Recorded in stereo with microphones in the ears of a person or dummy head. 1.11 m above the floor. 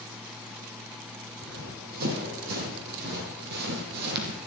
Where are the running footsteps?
50° right (ahead or behind), 4 m; by 4.4 s 60° right (ahead or behind), 2.5 m.